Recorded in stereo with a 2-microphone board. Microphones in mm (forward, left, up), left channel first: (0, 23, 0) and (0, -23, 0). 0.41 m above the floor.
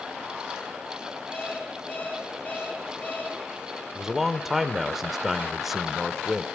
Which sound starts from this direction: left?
An alarm clock, at 1.3 s.